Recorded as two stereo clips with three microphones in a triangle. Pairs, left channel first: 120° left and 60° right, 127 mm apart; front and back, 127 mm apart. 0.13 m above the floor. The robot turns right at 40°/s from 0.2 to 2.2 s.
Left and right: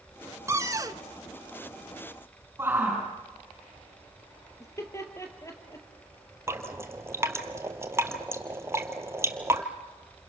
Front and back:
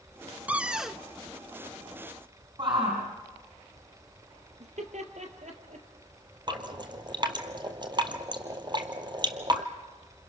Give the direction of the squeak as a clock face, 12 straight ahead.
No squeak in this recording.